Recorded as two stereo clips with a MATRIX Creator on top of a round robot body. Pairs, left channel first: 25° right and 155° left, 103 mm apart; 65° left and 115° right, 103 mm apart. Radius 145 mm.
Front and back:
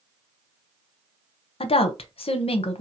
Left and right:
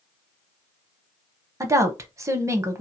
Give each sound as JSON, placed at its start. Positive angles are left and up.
{"t": 1.6, "sound": "a woman speaking", "azimuth_deg": -50, "distance_m": 0.7}